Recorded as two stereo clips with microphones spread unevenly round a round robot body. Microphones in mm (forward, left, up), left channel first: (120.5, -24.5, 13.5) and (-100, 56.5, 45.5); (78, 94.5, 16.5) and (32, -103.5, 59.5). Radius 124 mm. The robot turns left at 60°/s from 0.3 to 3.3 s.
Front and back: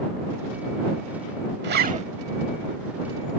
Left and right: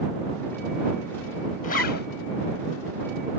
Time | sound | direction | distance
1.6 | a zipper | 120° left | ?